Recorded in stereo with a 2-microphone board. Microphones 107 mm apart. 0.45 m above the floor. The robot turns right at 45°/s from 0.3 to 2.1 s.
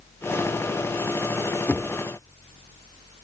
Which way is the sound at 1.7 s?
15° left (ahead or behind).